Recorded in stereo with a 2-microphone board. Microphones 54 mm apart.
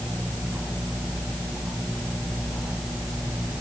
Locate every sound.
Only background noise.